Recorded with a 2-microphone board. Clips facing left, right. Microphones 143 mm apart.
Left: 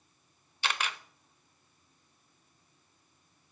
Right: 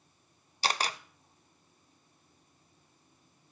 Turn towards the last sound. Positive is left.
turn(degrees=-35)  # may be behind; listen again after turning